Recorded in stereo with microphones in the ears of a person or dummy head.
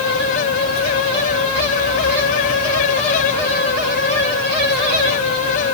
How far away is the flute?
No flute in this recording.